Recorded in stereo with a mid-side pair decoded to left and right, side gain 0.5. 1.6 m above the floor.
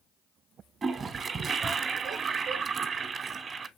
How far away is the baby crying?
No baby crying in this recording.